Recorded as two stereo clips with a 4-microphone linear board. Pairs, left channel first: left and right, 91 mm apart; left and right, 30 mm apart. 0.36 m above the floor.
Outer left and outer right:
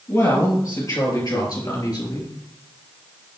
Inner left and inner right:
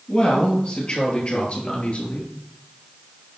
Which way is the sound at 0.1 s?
35° left (ahead or behind).